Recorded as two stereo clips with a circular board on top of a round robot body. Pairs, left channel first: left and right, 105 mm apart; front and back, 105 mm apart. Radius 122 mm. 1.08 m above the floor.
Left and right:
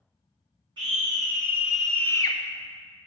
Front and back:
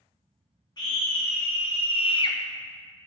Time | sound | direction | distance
0.8 | a scream | 45° right | 1.2 m